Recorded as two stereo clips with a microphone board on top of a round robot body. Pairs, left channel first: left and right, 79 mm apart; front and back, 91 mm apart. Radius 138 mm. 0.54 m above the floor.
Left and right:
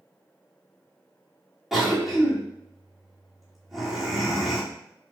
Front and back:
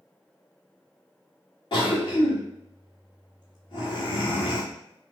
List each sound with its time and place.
1.7 s a cough: straight ahead, 1.9 m